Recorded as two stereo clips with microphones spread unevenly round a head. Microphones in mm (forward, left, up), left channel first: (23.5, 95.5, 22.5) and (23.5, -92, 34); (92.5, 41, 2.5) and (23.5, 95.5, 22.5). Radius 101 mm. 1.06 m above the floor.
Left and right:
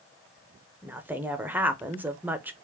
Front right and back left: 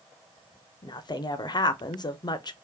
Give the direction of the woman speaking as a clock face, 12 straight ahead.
12 o'clock.